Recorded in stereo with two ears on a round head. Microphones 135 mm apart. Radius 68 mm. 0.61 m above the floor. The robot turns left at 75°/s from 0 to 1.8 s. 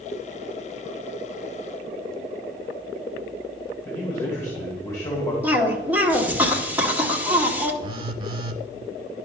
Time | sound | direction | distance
3.9 | a man speaking | 25° left (ahead or behind) | 2.0 m
5.4 | a cough | 10° right (ahead or behind) | 1.2 m
7.8 | a phone buzzing | 35° right (ahead or behind) | 0.7 m